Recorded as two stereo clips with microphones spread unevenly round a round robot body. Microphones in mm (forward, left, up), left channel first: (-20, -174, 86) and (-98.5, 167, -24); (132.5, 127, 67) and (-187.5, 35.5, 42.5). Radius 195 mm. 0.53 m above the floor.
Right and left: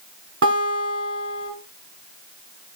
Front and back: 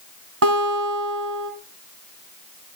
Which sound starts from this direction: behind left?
A guitar, at 0.4 s.